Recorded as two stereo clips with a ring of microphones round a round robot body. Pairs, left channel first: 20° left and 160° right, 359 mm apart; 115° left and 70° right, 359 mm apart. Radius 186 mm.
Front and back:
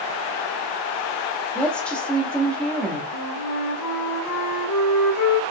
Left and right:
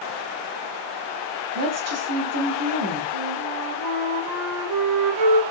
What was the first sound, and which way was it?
A woman speaking, 65° right.